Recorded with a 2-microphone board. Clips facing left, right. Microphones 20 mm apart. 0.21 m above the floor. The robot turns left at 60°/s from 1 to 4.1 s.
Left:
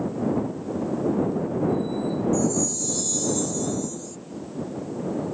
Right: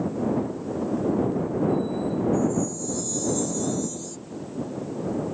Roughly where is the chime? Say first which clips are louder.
Even; left.